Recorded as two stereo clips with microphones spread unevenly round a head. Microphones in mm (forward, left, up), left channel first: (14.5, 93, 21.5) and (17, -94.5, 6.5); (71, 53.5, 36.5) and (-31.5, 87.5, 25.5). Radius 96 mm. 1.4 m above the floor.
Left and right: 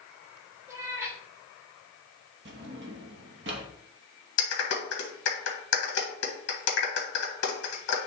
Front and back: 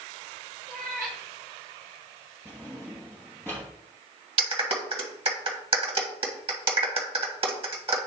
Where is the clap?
130° left, 1.5 m.